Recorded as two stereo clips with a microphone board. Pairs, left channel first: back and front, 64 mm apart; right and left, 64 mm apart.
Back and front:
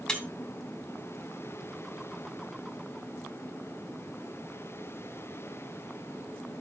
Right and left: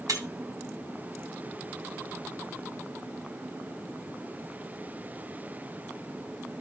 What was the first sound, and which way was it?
Breaking glass, 100° left.